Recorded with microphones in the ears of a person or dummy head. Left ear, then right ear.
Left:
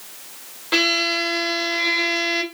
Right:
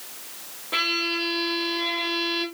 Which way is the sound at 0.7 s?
75° left (ahead or behind).